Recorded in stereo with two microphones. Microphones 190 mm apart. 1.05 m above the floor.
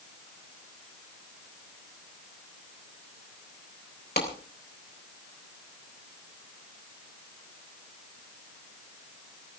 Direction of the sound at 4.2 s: 60° left (ahead or behind).